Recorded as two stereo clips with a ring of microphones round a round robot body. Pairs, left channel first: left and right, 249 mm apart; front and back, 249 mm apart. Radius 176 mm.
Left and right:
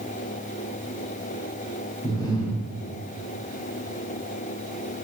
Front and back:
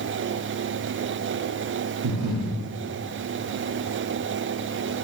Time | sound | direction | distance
2.0 | breathing | 170° left | 0.6 m